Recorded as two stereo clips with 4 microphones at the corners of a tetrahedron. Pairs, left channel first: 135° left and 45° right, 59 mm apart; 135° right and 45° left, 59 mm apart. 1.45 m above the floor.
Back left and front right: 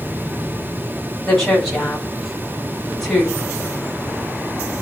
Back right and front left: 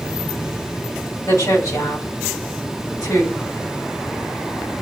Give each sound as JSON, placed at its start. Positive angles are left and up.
{"t": 1.2, "sound": "a woman speaking", "azimuth_deg": -150, "distance_m": 8.0}